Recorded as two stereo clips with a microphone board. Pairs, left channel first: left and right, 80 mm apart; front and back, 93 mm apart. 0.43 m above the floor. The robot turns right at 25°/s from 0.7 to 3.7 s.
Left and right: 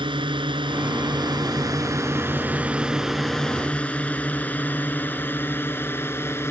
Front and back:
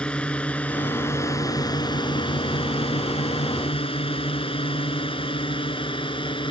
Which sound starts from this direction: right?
A drone, at 0.0 s.